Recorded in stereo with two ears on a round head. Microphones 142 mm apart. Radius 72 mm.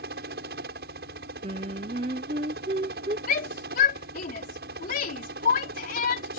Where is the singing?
35° right (ahead or behind).